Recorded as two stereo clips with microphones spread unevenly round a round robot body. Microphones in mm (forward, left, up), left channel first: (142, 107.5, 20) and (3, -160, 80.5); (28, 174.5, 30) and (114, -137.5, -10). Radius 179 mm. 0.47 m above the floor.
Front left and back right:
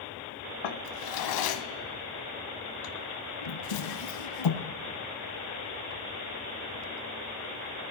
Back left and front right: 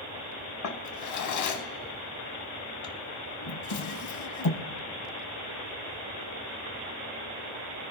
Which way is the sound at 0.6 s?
65° left.